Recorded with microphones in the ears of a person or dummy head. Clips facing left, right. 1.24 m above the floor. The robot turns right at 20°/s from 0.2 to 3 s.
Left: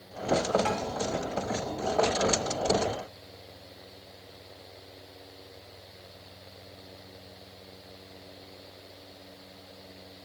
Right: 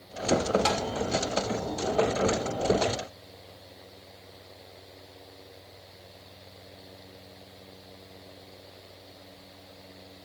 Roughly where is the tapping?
Right.